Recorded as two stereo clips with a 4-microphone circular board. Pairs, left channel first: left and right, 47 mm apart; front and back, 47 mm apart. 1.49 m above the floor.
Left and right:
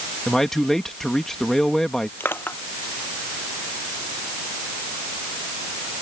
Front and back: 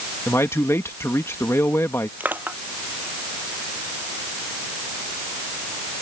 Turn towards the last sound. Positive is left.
turn(degrees=125)